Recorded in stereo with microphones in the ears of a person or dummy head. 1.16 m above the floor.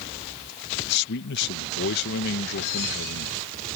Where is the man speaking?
55° left (ahead or behind).